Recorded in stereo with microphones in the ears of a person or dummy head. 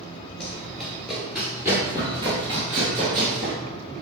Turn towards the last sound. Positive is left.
turn(degrees=-35)  # may be behind; listen again after turning